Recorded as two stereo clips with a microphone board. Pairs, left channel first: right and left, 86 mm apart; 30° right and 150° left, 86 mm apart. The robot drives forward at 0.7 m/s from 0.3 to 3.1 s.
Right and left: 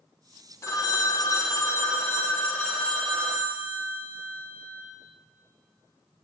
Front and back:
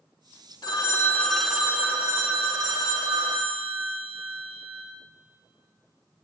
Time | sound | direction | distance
0.6 | a phone ringing | 45° right | 0.7 m